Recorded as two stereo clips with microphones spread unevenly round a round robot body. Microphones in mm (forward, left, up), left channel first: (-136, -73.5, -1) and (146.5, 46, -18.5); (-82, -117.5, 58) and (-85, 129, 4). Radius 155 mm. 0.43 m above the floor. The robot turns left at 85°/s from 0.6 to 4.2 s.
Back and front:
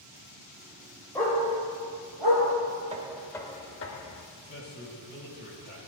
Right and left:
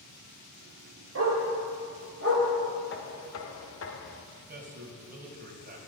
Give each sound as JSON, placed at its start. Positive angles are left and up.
{"t": 1.1, "sound": "a dog barking", "azimuth_deg": 120, "distance_m": 4.0}
{"t": 2.9, "sound": "knocking", "azimuth_deg": -35, "distance_m": 1.0}
{"t": 4.4, "sound": "a man speaking", "azimuth_deg": 140, "distance_m": 3.0}